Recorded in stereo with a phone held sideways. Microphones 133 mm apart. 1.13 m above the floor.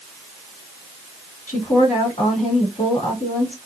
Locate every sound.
1.5 s a woman speaking: 75° left (ahead or behind), 2.5 m